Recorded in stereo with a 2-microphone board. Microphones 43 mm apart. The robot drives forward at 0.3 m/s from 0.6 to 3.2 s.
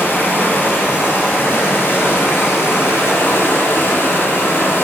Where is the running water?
50° left (ahead or behind), 1.2 m; by 4.8 s 60° left (ahead or behind), 1.1 m.